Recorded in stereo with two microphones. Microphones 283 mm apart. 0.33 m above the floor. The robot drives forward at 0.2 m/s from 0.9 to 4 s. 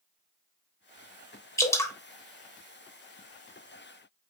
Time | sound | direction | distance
1.6 | dripping | 10° left (ahead or behind) | 0.8 m